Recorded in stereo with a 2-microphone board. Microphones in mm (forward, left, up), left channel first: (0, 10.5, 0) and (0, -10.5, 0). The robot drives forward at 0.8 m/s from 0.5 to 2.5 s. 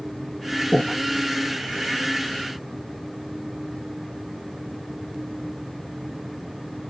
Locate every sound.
0.7 s breathing: 60° left (ahead or behind), 1.3 m; by 1.0 s 50° left (ahead or behind), 1.4 m